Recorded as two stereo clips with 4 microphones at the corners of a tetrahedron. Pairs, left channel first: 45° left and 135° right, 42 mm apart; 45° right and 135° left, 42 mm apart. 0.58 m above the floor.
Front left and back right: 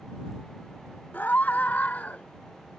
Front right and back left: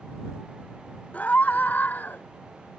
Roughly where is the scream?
Ahead.